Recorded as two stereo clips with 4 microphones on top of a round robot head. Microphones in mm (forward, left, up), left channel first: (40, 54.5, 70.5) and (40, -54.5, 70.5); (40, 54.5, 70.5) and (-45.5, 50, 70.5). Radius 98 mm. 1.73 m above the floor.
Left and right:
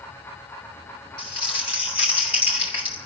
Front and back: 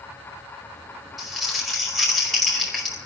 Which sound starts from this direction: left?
Crumpling, at 1.2 s.